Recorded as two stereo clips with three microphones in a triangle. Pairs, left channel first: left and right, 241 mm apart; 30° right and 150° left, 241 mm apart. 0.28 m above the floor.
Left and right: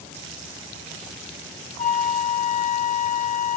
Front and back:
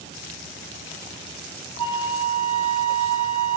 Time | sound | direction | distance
1.8 | a flute | 35° left | 0.7 m